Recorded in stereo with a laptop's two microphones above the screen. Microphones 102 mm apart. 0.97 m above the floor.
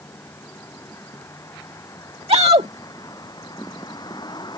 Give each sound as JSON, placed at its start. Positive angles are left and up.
{"t": 0.0, "sound": "a vehicle", "side_deg": 25}
{"t": 2.3, "sound": "a shout", "side_deg": -75}